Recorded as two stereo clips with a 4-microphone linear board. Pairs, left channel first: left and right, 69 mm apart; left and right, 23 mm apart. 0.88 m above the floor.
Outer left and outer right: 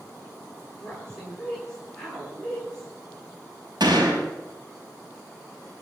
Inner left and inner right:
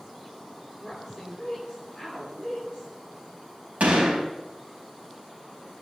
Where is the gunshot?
85° right, 4.5 m.